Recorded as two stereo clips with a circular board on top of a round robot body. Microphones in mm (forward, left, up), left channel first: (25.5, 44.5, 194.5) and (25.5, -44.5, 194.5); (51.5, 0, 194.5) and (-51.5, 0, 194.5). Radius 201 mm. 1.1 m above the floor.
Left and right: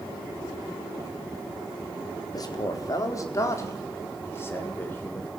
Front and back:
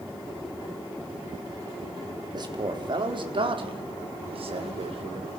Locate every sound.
2.3 s a man speaking: 135° left, 4 m; by 5.3 s 160° left, 4.5 m